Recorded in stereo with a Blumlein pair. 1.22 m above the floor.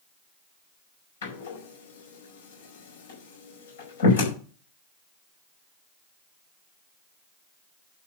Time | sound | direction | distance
1.2 | a door slam | 60° left | 5 m